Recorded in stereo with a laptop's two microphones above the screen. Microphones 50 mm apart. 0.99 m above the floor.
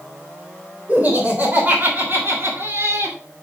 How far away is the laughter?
About 3.5 m.